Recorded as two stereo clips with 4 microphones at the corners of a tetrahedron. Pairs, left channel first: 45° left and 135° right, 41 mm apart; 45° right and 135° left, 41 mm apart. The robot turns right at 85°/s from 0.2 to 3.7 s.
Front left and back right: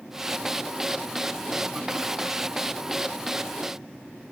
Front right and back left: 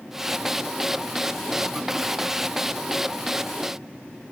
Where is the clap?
No clap in this recording.